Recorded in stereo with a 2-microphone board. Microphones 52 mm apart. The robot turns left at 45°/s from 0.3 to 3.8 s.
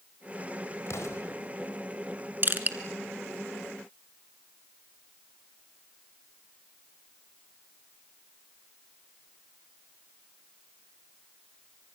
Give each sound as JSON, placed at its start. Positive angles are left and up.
{"t": 0.9, "sound": "an explosion", "side_deg": 60, "distance_m": 4.0}
{"t": 2.4, "sound": "crushing", "side_deg": -45, "distance_m": 1.5}